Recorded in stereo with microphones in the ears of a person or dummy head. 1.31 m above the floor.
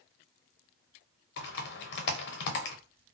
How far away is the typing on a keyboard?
About 0.7 m.